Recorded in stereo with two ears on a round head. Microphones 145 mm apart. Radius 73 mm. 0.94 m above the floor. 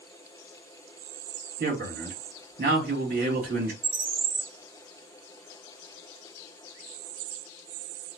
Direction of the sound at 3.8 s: 50° right (ahead or behind).